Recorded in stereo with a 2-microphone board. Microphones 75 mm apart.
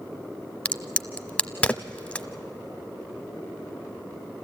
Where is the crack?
15° left (ahead or behind), 0.5 m.